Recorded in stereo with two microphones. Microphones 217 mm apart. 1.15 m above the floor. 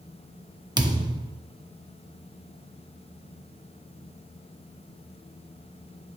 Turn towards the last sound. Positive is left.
turn(degrees=-20)  # may be behind; listen again after turning